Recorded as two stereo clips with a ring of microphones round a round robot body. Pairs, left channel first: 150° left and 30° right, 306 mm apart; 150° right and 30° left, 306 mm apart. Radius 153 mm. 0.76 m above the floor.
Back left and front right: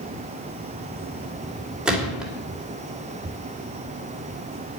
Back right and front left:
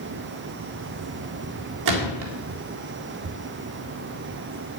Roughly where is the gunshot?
Ahead left.